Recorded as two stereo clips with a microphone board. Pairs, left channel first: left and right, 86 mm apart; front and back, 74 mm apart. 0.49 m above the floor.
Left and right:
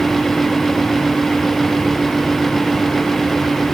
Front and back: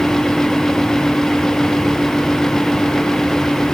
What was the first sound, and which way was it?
Only background noise.